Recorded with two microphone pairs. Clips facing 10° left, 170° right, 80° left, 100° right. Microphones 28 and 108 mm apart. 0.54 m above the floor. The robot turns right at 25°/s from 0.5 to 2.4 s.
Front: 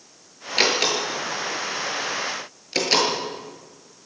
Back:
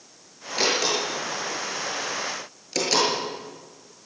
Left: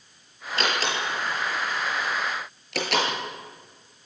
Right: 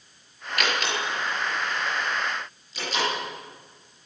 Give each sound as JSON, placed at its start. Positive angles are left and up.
{"t": 0.6, "sound": "a door slam", "azimuth_deg": 15, "distance_m": 6.5}